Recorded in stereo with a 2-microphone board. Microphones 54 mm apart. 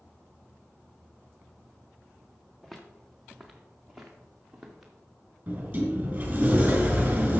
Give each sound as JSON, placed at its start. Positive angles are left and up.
{"t": 2.6, "sound": "footsteps", "side_deg": 5, "distance_m": 1.5}
{"t": 5.5, "sound": "a sliding door", "side_deg": -30, "distance_m": 3.5}